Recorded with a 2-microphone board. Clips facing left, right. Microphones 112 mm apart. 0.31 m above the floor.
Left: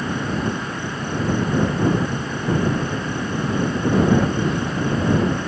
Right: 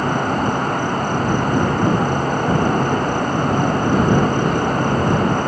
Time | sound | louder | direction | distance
0.0 | an insect | right 5 dB | 55° right (ahead or behind) | ?